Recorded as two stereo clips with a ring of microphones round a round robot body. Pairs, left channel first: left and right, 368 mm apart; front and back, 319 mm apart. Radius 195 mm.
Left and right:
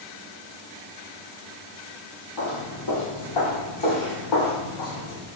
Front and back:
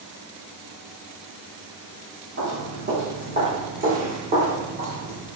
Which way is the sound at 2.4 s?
130° left.